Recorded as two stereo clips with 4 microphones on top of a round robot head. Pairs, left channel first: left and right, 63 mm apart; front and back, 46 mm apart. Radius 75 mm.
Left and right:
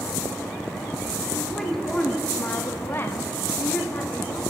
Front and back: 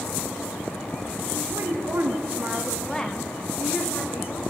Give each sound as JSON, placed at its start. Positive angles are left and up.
{"t": 1.3, "sound": "a woman speaking", "azimuth_deg": 180, "distance_m": 1.5}